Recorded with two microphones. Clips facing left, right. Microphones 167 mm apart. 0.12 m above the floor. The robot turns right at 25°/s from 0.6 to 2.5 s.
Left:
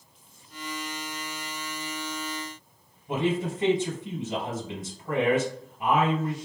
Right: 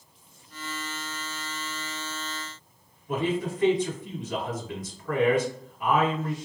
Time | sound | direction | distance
3.1 | a man speaking | 25° left (ahead or behind) | 2.0 m